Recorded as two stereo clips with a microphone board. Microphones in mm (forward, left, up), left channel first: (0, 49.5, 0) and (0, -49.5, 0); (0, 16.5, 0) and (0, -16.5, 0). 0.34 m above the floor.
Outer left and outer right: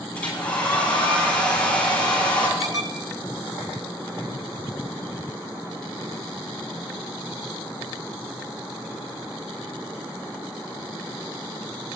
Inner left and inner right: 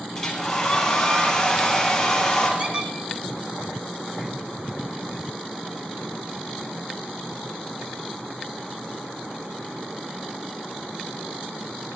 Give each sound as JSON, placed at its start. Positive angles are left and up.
{"t": 0.1, "sound": "a hair dryer", "side_deg": 15, "distance_m": 6.5}
{"t": 2.6, "sound": "a squeak", "side_deg": -35, "distance_m": 1.5}